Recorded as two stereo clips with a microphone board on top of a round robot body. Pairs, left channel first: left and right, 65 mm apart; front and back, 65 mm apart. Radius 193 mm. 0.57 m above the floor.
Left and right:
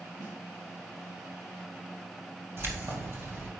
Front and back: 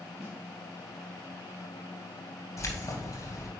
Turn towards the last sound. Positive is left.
turn(degrees=-40)